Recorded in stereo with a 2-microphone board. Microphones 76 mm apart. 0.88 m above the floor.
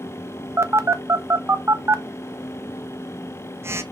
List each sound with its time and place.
0.6 s a phone buzzing: 35° right (ahead or behind), 0.8 m